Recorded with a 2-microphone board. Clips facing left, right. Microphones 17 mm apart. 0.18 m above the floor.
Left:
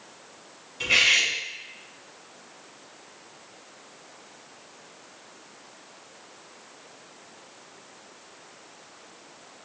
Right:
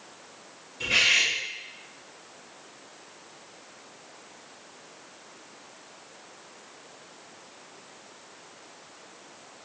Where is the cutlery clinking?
35° left (ahead or behind), 0.9 m.